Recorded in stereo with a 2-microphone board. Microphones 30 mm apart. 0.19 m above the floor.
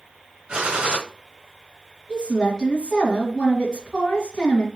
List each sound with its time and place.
0.5 s a gunshot: 30° right (ahead or behind), 1.4 m
2.1 s a woman speaking: 25° left (ahead or behind), 1.7 m